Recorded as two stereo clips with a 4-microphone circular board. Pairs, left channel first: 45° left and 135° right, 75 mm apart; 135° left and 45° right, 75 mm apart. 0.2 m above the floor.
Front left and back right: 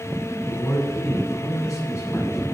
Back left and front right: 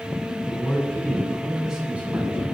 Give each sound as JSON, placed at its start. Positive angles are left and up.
{"t": 0.5, "sound": "a man speaking", "azimuth_deg": 95, "distance_m": 2.5}